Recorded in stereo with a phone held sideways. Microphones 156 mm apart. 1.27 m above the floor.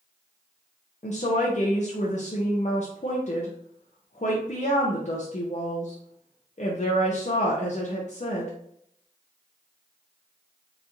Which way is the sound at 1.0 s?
50° left (ahead or behind).